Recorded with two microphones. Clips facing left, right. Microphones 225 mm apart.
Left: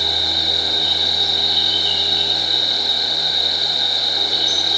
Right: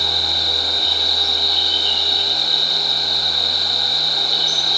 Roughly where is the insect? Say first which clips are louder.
Left 1 dB; left.